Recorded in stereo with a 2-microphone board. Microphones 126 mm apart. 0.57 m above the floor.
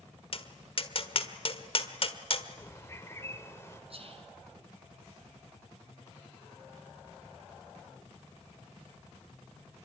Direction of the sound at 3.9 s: 55° right (ahead or behind).